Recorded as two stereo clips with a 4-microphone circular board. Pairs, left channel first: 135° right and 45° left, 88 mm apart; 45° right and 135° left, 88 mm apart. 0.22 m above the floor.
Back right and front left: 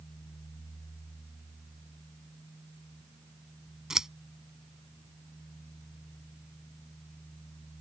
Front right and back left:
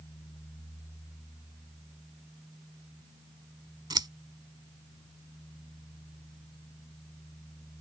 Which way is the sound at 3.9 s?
125° left.